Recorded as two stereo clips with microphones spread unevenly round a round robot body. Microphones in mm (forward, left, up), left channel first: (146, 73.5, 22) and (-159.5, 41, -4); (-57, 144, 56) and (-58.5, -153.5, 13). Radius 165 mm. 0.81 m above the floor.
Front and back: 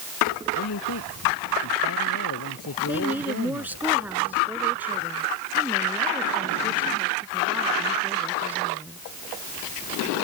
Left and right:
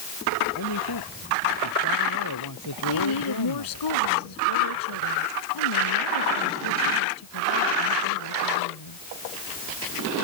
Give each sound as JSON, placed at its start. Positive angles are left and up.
{"t": 0.6, "sound": "a man speaking", "azimuth_deg": 45}
{"t": 2.9, "sound": "a woman speaking", "azimuth_deg": 100}